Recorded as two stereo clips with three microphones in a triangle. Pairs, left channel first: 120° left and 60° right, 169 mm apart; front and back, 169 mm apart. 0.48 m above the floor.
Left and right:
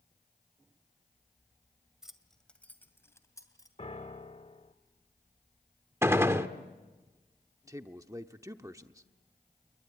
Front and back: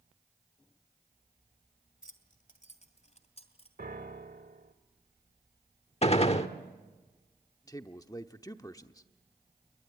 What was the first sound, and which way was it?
Keys jangling, 25° left.